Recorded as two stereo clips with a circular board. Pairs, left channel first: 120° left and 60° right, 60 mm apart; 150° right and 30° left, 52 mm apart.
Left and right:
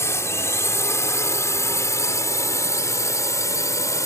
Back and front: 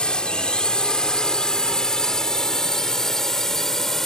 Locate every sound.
0.0 s a drone: 140° left; by 4.1 s 130° left